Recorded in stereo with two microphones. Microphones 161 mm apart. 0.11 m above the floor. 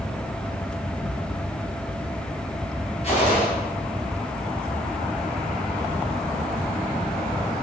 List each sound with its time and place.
3.0 s a gunshot: 45° left (ahead or behind), 2.5 m